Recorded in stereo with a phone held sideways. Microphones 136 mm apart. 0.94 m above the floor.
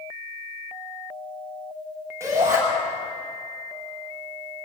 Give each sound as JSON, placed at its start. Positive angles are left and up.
{"t": 2.2, "sound": "a shout", "side_deg": -20, "distance_m": 8.0}